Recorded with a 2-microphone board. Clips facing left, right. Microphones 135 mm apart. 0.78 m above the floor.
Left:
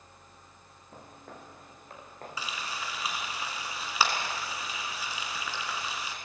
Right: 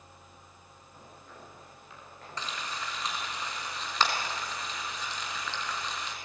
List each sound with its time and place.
0.9 s footsteps: 60° left (ahead or behind), 9.5 m; by 2.4 s 45° left (ahead or behind), 8.5 m
2.4 s frying: 5° left (ahead or behind), 3 m